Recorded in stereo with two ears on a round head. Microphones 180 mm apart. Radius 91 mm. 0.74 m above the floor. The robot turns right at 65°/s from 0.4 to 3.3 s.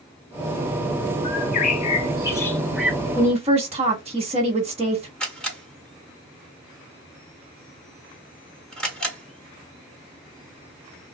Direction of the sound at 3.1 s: 35° right (ahead or behind).